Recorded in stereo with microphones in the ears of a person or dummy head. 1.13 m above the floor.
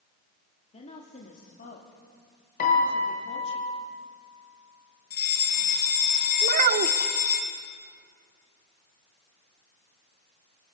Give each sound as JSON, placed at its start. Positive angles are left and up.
{"t": 0.7, "sound": "a woman speaking", "side_deg": 30, "distance_m": 2.0}
{"t": 2.6, "sound": "a piano", "side_deg": 50, "distance_m": 4.5}
{"t": 5.1, "sound": "a fire alarm", "side_deg": 45, "distance_m": 2.0}
{"t": 6.4, "sound": "a child speaking", "side_deg": -50, "distance_m": 1.5}